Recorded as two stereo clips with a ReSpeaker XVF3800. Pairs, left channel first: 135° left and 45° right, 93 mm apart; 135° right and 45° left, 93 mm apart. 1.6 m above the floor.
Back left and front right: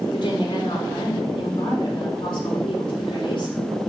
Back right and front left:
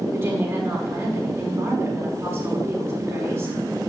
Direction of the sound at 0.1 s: 110° left.